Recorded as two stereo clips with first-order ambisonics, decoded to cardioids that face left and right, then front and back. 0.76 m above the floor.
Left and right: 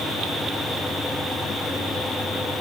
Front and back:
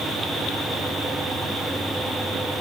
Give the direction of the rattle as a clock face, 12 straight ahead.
No rattle in this recording.